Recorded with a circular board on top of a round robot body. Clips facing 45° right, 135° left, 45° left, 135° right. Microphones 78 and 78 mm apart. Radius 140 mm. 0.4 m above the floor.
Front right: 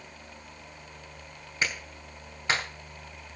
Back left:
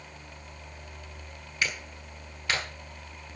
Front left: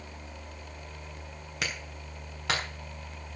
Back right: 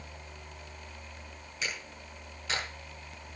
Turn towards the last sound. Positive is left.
turn(degrees=20)